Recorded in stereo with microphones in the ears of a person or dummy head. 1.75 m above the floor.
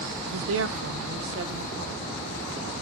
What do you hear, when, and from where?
0.3 s a woman speaking: 80° right, 0.9 m; by 2.7 s 60° right (ahead or behind), 2.5 m